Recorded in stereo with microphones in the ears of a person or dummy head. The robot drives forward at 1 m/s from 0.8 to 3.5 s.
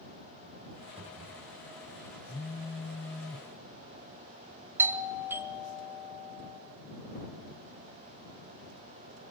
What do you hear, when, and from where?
1.0 s a cupboard door: 35° right (ahead or behind), 4 m
2.3 s a phone buzzing: 15° left (ahead or behind), 0.7 m
4.8 s a doorbell: 10° right (ahead or behind), 1.2 m